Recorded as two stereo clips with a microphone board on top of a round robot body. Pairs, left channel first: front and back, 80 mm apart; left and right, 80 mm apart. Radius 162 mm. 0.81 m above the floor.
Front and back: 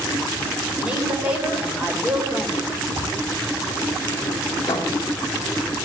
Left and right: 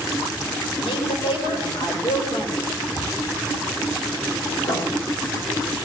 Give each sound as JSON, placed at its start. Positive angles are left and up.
{"t": 0.8, "sound": "a woman speaking", "azimuth_deg": 105, "distance_m": 3.5}
{"t": 3.0, "sound": "a drawer", "azimuth_deg": 85, "distance_m": 4.0}
{"t": 4.6, "sound": "writing", "azimuth_deg": 55, "distance_m": 1.8}